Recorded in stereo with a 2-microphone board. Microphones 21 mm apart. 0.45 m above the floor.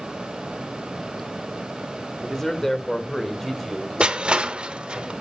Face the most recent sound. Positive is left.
turn(degrees=-55)  # may be behind; listen again after turning